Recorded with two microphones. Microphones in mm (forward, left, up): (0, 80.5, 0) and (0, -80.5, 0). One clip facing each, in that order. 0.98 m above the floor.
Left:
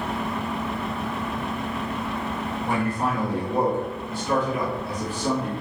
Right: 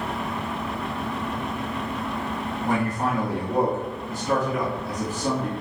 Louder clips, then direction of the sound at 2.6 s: Right 1 dB; 40° right (ahead or behind).